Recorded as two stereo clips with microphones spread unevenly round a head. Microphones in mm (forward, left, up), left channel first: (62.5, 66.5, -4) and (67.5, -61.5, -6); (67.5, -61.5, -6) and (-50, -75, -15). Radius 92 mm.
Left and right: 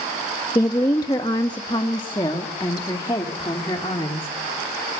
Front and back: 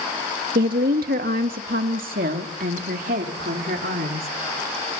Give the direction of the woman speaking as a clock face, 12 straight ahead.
7 o'clock.